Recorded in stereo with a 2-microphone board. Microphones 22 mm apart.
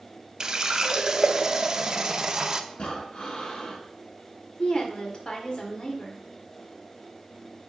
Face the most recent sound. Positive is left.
turn(degrees=45)  # may be behind; listen again after turning